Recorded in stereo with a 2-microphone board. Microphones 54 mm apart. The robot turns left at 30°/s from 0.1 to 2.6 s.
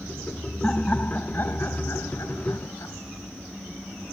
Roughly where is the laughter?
Behind.